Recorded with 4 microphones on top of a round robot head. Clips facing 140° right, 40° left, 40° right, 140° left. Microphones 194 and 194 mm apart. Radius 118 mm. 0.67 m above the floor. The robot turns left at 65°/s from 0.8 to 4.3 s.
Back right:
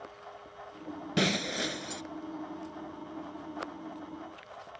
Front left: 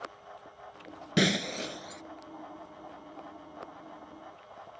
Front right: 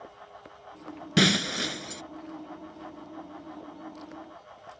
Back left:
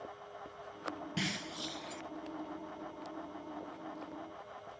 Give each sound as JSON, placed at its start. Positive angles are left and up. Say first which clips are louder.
{"t": 1.2, "sound": "breaking glass", "louder": "front left 2 dB, front right 21 dB", "azimuth_deg": -30}